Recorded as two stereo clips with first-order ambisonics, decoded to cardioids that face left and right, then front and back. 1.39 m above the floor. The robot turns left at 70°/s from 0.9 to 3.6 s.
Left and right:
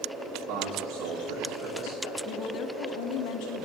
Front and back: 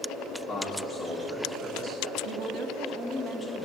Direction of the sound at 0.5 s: 60° right.